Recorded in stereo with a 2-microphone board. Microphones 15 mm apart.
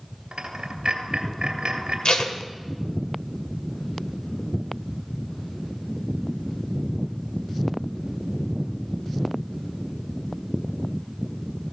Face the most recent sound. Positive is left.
turn(degrees=65)  # may be behind; listen again after turning